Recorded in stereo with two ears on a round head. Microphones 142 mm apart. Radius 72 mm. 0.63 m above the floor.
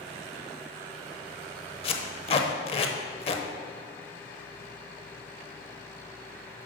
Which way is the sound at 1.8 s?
35° left (ahead or behind).